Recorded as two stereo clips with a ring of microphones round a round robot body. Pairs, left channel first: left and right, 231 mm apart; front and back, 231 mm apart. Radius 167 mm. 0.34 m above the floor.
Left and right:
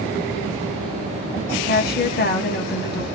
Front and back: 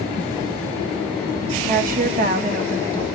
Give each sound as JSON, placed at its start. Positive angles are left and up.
{"t": 1.6, "sound": "a woman speaking", "azimuth_deg": 130, "distance_m": 3.5}